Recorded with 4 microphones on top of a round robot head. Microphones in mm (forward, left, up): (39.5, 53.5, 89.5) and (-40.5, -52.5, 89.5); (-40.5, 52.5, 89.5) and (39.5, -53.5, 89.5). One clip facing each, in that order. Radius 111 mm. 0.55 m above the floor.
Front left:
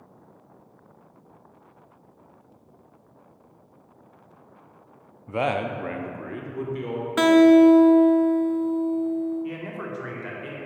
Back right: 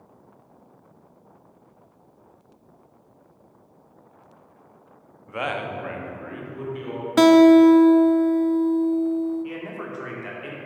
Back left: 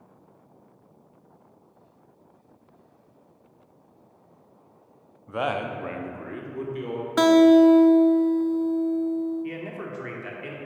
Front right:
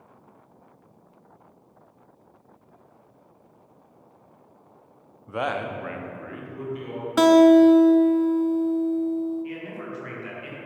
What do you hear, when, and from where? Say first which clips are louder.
5.3 s a man speaking: front left 4 dB, even; 20° left, 0.7 m; by 7.1 s 95° left, 1.7 m
7.2 s a guitar: back right 2 dB, front right 1 dB; 130° right, 0.5 m
9.4 s a man speaking: even, back left 1 dB; 145° left, 1.6 m